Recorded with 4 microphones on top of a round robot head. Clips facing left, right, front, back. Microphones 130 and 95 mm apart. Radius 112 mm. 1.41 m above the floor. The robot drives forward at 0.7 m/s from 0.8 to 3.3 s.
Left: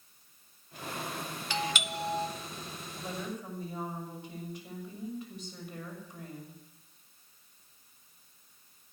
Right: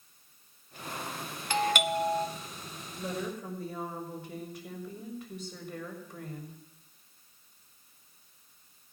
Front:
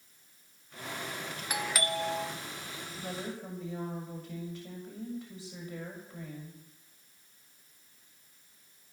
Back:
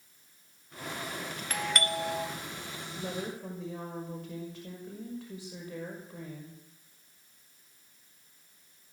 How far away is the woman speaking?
About 6 m.